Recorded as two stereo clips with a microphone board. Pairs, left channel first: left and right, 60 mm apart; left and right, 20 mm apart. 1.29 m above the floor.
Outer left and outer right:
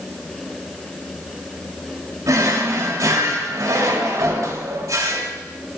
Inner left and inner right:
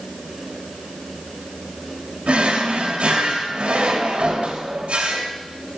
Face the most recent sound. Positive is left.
turn(degrees=-60)  # may be behind; listen again after turning